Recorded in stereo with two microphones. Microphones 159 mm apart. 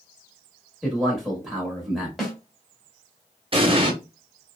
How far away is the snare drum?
About 1.0 m.